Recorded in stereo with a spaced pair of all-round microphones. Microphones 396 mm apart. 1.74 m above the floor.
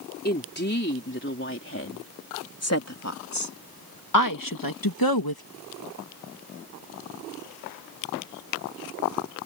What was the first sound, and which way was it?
A woman speaking, 25° left (ahead or behind).